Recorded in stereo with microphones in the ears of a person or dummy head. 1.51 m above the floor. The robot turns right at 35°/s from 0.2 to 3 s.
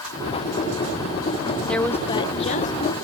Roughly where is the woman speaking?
Ahead.